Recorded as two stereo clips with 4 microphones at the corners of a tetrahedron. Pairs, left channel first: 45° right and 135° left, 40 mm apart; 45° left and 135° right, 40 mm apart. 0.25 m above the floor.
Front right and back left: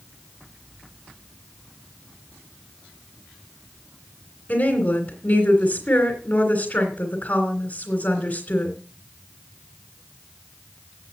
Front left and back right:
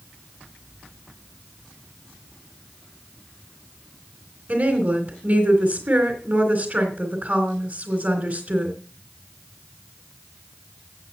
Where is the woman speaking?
95° right, 2.5 m.